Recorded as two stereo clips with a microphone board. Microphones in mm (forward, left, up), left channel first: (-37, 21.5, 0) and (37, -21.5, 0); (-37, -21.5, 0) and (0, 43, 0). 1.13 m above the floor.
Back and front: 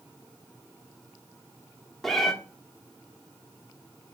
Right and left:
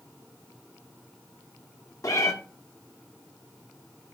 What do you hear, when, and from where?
2.0 s a cat meowing: 125° right, 0.9 m